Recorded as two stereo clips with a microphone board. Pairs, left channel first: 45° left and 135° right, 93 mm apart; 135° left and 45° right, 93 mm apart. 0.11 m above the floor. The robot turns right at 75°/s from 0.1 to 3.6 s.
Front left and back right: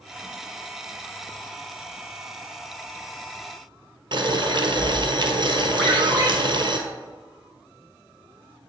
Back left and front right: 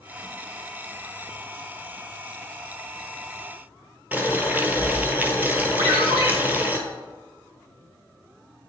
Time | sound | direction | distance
4.1 | boiling | 115° right | 0.9 m
5.8 | a ringtone | 30° right | 2.5 m